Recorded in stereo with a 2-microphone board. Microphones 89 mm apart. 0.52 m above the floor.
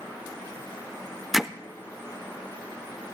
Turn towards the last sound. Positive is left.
turn(degrees=-5)  # may be behind; listen again after turning